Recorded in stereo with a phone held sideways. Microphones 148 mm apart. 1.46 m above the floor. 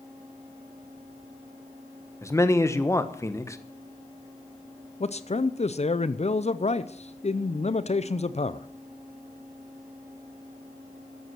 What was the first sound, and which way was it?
A man speaking, 20° left (ahead or behind).